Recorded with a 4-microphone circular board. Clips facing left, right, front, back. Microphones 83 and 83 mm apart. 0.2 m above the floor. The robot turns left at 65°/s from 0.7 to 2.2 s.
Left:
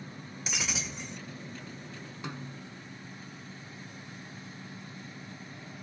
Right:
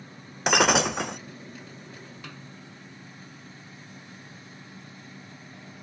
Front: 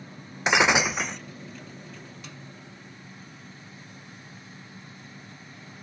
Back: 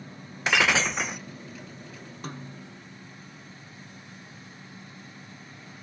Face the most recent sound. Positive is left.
turn(degrees=155)